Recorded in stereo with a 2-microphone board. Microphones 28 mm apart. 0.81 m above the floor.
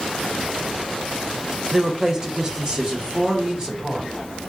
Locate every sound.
1.7 s a woman speaking: 20° right (ahead or behind), 0.6 m; by 4.5 s 25° right (ahead or behind), 2.0 m